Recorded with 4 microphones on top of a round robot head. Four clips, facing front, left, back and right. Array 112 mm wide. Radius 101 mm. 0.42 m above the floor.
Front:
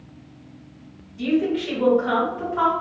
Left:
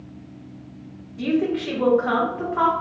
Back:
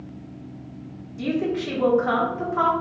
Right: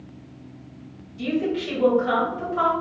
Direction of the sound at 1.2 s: 125° left.